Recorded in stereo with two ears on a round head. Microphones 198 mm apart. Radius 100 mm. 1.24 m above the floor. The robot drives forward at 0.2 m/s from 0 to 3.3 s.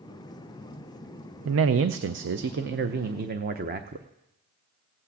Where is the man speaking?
70° right (ahead or behind), 0.5 m; by 4.1 s 40° right (ahead or behind), 0.7 m.